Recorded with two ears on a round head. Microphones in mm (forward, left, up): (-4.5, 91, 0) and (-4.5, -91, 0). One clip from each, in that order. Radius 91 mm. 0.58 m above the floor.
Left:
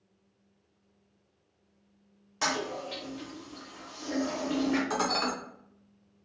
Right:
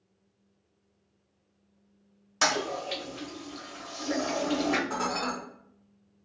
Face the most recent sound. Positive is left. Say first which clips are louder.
# left 2 dB
turn(degrees=55)  # may be behind; listen again after turning